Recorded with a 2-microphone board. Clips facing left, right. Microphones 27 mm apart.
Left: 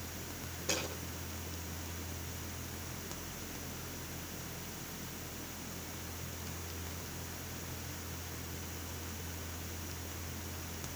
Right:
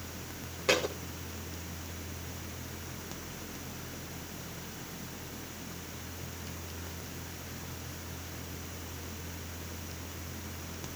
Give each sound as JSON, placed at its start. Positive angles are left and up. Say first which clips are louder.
{"t": 0.7, "sound": "a thud", "louder": "right 9 dB", "side_deg": -80, "distance_m": 3.0}